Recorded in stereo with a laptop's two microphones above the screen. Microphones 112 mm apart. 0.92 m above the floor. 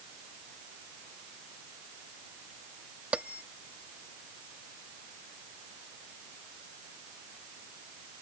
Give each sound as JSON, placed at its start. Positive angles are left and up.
{"t": 3.1, "sound": "a bell", "side_deg": -10}